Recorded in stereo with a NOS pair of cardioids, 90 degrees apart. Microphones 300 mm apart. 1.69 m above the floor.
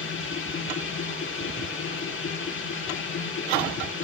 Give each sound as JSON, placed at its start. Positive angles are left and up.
{"t": 0.0, "sound": "a machine running", "azimuth_deg": 40, "distance_m": 3.5}